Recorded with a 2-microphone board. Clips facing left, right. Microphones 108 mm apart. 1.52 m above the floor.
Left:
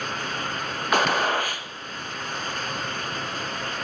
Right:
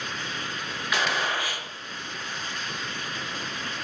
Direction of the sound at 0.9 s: 45° left (ahead or behind).